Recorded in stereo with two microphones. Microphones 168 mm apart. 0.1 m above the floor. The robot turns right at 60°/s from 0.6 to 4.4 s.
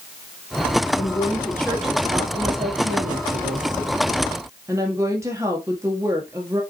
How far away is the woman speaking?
About 2.5 m.